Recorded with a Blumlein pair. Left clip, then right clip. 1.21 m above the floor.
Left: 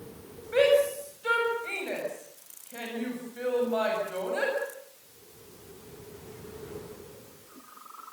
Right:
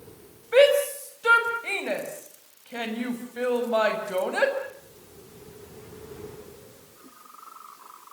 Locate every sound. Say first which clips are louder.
0.5 s a shout: right 4 dB; 65° right, 7 m